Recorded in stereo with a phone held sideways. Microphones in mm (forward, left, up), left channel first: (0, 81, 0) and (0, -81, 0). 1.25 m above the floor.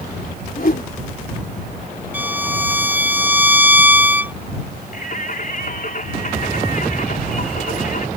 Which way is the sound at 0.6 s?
65° left (ahead or behind).